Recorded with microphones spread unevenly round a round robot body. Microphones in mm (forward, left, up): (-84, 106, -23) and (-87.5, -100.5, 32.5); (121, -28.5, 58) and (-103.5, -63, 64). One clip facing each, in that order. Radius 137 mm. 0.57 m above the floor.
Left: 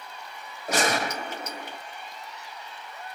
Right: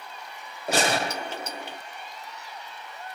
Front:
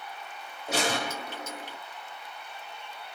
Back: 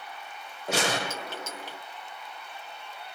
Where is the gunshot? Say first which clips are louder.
Right 1 dB, back 1 dB; 150° right, 0.8 m.